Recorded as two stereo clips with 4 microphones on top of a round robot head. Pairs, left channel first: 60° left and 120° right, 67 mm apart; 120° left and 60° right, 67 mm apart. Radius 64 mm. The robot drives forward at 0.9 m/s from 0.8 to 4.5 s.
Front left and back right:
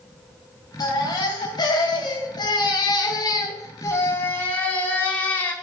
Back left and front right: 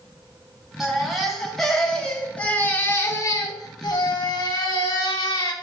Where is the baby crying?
30° left, 3 m; by 5.5 s 125° left, 1.7 m.